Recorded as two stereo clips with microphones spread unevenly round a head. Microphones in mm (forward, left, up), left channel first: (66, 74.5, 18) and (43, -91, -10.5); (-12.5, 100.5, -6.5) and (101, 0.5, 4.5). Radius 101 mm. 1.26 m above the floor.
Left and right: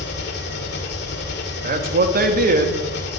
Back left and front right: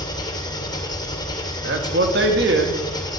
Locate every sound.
0.0 s an engine running: 75° left, 2.5 m
1.6 s a man speaking: 65° right, 1.8 m